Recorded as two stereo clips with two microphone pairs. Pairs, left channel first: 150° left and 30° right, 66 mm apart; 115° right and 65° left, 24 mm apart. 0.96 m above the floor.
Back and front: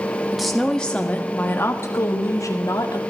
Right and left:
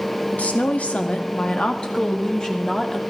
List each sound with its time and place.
0.3 s a woman speaking: 115° right, 1.6 m; by 3.0 s 175° left, 2 m